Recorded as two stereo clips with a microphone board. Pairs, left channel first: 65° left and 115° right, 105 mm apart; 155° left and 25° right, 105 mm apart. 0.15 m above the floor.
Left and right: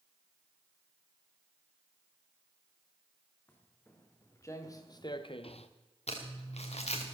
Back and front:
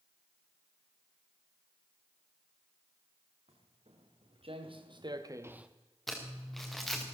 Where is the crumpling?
70° left, 3 m.